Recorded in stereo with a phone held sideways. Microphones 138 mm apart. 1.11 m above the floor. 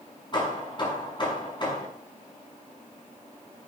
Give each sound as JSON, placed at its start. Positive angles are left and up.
{"t": 0.3, "sound": "hammering", "side_deg": 35, "distance_m": 6.5}